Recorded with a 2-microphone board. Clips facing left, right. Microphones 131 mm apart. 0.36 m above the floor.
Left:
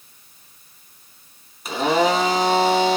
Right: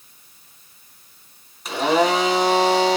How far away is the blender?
About 1.6 m.